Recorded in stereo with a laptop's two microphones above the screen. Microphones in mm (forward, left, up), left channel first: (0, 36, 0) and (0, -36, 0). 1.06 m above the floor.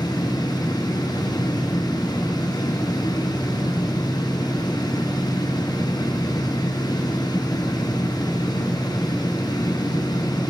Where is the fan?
70° left (ahead or behind), 0.9 m.